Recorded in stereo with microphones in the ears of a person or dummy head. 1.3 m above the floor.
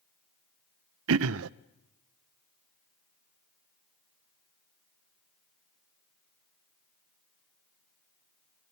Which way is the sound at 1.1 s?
80° right.